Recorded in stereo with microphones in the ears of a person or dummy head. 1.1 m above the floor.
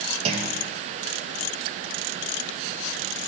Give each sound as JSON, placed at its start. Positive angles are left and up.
{"t": 0.2, "sound": "a clunk", "side_deg": -35, "distance_m": 0.6}